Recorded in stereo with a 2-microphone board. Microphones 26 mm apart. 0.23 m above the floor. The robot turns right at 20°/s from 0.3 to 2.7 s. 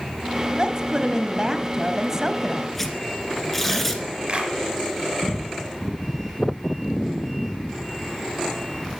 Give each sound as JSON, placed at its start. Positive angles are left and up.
{"t": 0.6, "sound": "a woman speaking", "azimuth_deg": -65, "distance_m": 1.1}
{"t": 2.8, "sound": "tearing paper", "side_deg": 10, "distance_m": 1.9}
{"t": 4.3, "sound": "a clap", "side_deg": -40, "distance_m": 4.0}